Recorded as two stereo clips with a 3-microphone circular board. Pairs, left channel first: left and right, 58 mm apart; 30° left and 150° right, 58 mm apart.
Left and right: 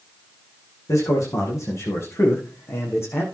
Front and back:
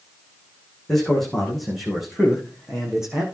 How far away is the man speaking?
About 8.5 m.